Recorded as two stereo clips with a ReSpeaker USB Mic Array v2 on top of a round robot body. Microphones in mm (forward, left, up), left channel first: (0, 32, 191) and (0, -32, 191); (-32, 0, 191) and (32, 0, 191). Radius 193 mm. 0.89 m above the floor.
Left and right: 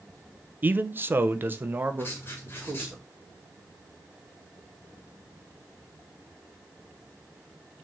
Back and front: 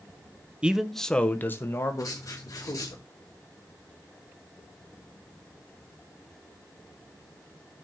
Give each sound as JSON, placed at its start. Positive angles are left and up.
{"t": 0.6, "sound": "a man speaking", "azimuth_deg": -60, "distance_m": 1.0}
{"t": 2.0, "sound": "writing", "azimuth_deg": 145, "distance_m": 1.5}